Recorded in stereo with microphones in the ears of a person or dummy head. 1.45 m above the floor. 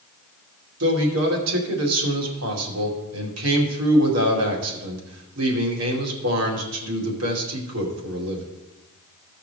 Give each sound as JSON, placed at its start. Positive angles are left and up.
{"t": 0.8, "sound": "a man speaking", "side_deg": -85, "distance_m": 2.5}